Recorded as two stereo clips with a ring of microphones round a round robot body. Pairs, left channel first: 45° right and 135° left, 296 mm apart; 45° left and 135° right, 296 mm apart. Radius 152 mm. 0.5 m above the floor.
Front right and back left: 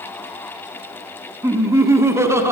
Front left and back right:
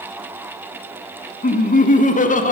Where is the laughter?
65° left, 1.4 m.